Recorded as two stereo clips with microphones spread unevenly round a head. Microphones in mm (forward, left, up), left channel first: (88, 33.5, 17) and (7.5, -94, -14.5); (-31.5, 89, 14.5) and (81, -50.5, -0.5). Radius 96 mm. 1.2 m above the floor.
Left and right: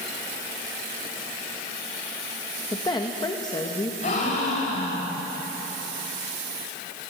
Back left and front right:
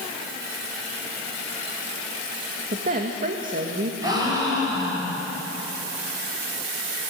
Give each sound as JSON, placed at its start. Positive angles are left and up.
{"t": 2.7, "sound": "a woman speaking", "azimuth_deg": -10, "distance_m": 1.8}
{"t": 4.0, "sound": "a gasp", "azimuth_deg": 20, "distance_m": 6.5}